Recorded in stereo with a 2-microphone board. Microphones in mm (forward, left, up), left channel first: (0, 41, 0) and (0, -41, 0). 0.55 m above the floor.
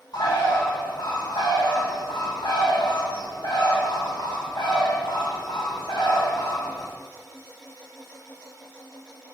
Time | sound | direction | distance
0.1 | a bird | 70° left (ahead or behind) | 0.9 m